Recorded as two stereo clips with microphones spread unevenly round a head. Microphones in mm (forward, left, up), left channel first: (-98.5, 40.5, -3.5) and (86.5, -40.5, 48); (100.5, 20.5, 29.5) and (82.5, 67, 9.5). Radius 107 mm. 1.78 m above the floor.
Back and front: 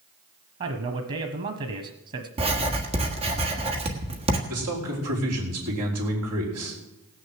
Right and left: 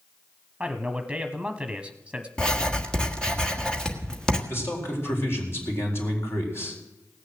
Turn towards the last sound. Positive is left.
turn(degrees=-35)